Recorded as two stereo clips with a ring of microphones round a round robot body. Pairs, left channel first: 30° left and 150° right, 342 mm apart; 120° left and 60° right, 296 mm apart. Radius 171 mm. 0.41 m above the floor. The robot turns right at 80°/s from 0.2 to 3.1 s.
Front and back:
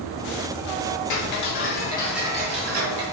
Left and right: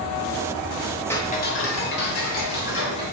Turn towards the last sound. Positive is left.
turn(degrees=-160)